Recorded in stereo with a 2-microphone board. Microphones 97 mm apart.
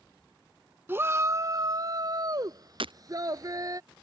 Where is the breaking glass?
70° right (ahead or behind).